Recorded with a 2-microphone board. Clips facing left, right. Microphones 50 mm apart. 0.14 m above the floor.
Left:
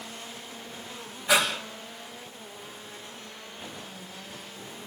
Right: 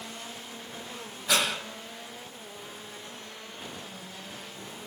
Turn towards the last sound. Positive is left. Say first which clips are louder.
# left 3 dB
turn(degrees=15)  # may be behind; listen again after turning